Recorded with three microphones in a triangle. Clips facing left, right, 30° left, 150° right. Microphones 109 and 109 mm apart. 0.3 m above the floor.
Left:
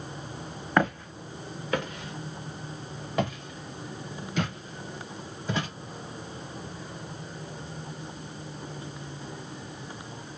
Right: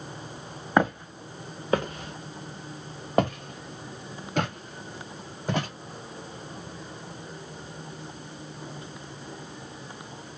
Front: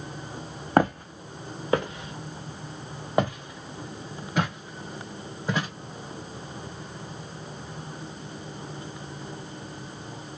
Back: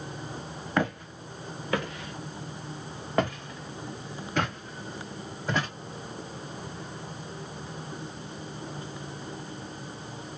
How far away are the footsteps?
About 1.2 m.